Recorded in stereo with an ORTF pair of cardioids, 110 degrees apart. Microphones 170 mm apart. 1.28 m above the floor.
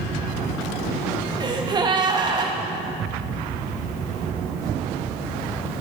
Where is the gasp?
25° right, 1.1 m.